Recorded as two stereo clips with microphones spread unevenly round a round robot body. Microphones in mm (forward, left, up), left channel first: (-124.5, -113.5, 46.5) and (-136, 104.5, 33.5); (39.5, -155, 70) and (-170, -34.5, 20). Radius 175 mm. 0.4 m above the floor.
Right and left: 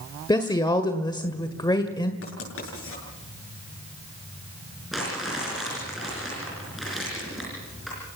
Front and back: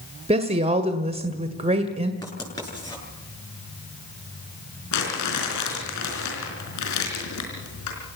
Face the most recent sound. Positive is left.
turn(degrees=5)